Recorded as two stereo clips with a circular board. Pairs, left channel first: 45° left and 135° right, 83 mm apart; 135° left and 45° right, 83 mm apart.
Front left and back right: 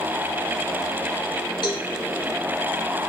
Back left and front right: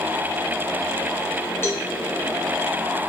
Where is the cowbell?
75° left, 1.4 m.